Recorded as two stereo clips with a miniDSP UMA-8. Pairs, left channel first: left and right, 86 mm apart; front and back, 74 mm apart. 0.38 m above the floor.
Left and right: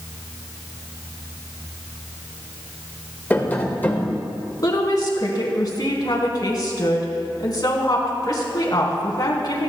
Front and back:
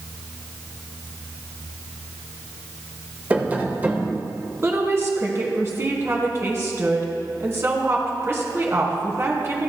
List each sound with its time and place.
3.3 s tapping: 140° left, 1.4 m
4.6 s a woman speaking: 130° left, 3 m